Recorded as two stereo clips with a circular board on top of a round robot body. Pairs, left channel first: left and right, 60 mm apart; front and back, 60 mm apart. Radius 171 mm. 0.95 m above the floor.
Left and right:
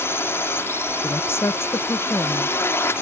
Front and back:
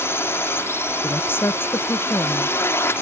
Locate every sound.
0.0 s a drone: 45° left
1.0 s a woman speaking: 50° left